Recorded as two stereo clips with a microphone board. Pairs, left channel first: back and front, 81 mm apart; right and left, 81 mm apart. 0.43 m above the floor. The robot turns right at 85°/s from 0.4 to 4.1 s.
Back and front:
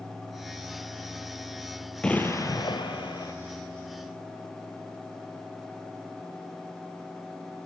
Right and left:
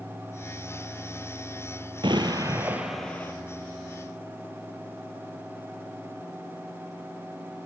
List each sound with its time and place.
2.0 s an explosion: 100° left, 1.5 m; by 3.3 s 145° right, 1.5 m